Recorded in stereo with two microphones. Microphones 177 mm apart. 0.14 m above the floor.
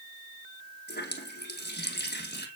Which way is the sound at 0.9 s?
65° left (ahead or behind).